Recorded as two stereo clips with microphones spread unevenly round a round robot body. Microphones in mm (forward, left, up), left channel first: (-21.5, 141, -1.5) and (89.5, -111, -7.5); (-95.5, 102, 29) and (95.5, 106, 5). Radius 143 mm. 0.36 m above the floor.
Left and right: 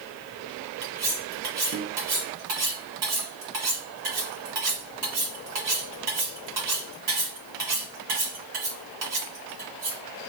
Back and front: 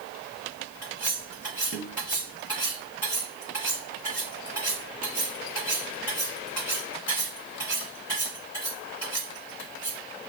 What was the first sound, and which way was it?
Cutlery clinking, 95° right.